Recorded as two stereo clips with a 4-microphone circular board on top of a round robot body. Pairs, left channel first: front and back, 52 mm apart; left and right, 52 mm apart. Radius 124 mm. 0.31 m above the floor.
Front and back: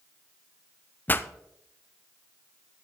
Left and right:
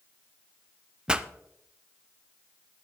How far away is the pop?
About 0.7 m.